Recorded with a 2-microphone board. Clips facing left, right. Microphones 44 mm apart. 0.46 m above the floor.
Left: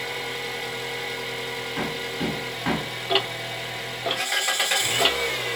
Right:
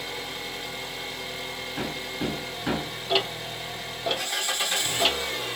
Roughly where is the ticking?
Left.